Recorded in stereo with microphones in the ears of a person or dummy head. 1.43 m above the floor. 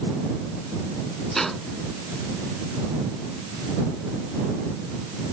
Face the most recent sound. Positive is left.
turn(degrees=0)  # may be behind; listen again after turning